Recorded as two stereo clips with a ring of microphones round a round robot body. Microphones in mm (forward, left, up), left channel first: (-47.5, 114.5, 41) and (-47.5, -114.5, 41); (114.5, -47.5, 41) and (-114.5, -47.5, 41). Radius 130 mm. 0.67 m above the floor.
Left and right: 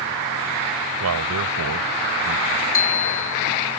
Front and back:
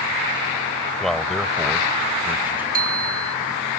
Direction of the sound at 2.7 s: 120° left.